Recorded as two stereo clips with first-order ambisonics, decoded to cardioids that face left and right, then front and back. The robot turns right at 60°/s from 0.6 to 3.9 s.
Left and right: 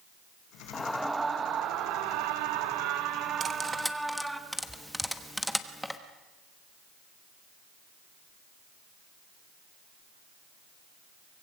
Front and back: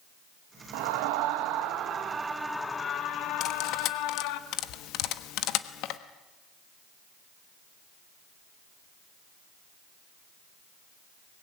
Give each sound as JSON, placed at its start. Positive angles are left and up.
{"t": 0.7, "sound": "a scream", "azimuth_deg": 165, "distance_m": 1.5}
{"t": 3.4, "sound": "cutlery clinking", "azimuth_deg": -30, "distance_m": 1.1}